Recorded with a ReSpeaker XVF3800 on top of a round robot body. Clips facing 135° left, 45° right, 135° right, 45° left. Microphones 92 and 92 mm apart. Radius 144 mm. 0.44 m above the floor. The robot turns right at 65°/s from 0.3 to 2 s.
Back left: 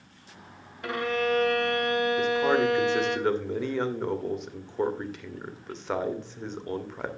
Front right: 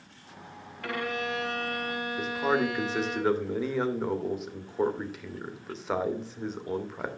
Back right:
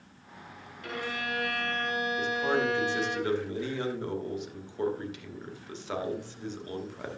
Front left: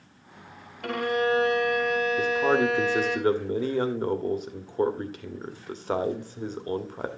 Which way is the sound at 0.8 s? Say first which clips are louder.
Back left 5 dB, front left 10 dB; 65° left.